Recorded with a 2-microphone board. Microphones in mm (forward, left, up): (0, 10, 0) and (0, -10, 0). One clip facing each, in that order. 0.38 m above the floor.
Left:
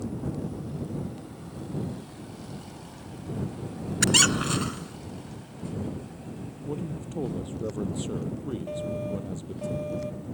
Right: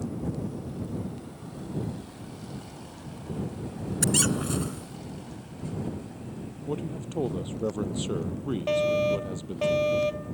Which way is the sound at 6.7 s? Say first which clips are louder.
Right 1 dB; 25° right (ahead or behind).